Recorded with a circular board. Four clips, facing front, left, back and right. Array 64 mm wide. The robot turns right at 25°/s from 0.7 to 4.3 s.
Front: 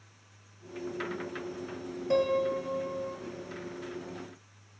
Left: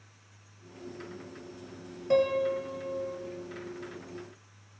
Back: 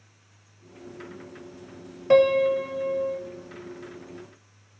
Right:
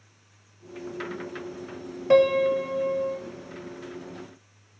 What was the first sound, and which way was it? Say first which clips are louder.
A piano: right 7 dB, back 9 dB; 140° right.